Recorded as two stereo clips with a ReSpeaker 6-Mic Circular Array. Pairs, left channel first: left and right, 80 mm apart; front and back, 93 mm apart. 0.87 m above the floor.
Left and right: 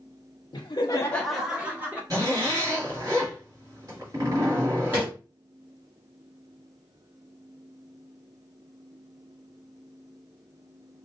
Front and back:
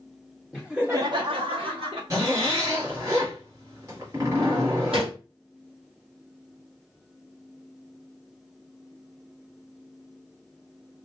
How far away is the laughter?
About 0.8 m.